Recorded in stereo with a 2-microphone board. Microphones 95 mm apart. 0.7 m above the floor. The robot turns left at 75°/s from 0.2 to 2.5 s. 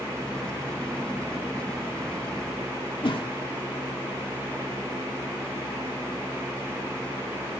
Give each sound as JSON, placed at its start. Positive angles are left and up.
{"t": 3.0, "sound": "a whoosh", "side_deg": 60, "distance_m": 1.8}